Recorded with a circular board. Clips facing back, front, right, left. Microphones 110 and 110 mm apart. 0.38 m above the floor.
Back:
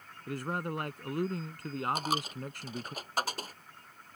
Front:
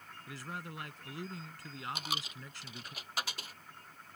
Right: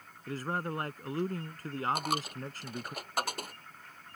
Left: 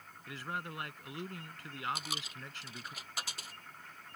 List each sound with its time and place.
0.3 s a man speaking: 140° right
1.9 s a dropped coin: 130° right